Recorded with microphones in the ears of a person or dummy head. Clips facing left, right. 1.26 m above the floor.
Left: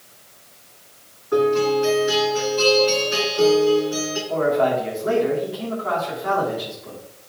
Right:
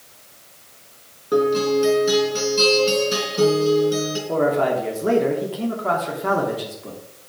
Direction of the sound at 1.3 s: 50° right (ahead or behind).